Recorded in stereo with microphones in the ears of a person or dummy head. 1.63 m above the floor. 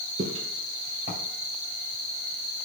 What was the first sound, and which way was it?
Footsteps, 25° right (ahead or behind).